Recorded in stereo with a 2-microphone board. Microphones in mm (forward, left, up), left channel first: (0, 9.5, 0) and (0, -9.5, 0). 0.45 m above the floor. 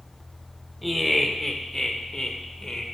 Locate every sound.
0.8 s laughter: 10° left (ahead or behind), 1.2 m; by 2.8 s 50° left (ahead or behind), 1.5 m